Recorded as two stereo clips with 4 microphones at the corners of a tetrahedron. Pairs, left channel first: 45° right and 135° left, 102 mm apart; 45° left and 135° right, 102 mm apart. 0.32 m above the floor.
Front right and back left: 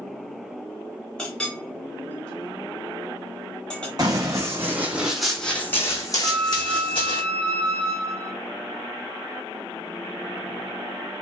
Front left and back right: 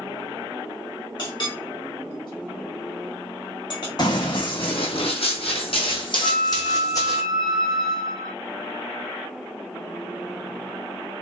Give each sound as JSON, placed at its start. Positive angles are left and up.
{"t": 1.2, "sound": "a clink", "azimuth_deg": 35, "distance_m": 1.0}
{"t": 4.0, "sound": "running footsteps", "azimuth_deg": 85, "distance_m": 1.1}
{"t": 6.2, "sound": "a flute", "azimuth_deg": 10, "distance_m": 1.2}